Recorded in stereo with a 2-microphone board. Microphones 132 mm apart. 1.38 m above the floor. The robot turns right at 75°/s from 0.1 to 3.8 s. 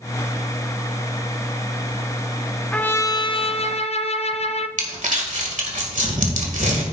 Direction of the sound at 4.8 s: 80° right.